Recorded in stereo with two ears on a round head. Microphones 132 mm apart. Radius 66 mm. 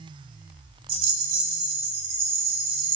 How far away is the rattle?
About 0.9 m.